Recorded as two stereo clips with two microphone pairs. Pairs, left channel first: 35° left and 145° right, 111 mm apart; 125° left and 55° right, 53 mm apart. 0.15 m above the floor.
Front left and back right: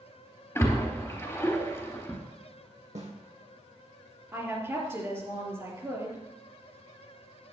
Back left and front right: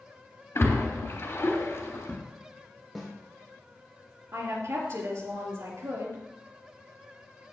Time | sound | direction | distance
0.6 | a splash | 100° left | 3 m
3.0 | a snare drum | 145° right | 3 m
4.3 | a woman speaking | 80° right | 3.5 m